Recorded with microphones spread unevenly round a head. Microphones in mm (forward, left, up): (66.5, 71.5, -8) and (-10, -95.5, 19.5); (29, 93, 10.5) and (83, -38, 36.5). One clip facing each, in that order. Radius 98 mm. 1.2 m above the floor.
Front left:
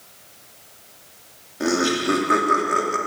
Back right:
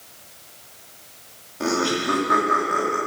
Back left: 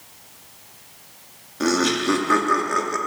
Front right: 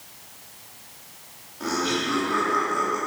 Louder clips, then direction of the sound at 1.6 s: Front left 2 dB, back left 6 dB; 145° left.